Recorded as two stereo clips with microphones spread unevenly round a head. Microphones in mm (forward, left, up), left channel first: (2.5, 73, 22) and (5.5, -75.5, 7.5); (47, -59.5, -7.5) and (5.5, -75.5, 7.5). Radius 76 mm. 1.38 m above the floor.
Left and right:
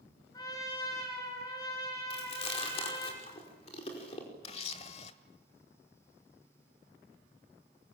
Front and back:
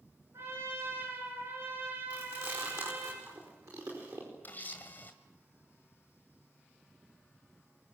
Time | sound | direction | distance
0.3 | a trumpet | 155° left | 6.5 m
2.1 | chewing | 145° left | 5 m
4.4 | a camera shutter | 90° left | 1.4 m